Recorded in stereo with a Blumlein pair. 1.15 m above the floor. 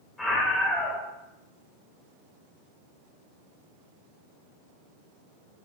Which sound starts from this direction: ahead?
A scream, at 0.2 s.